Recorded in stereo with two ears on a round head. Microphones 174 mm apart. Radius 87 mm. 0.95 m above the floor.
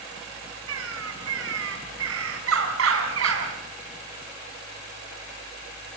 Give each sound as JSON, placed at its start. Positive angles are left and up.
{"t": 0.7, "sound": "a bird", "side_deg": -80, "distance_m": 4.0}